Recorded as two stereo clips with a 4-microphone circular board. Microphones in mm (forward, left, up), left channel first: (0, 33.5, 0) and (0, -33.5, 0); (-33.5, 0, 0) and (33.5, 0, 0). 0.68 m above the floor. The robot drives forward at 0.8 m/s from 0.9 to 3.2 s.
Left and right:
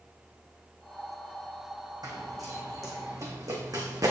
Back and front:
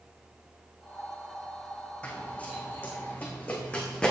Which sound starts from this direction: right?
Running footsteps, at 2.0 s.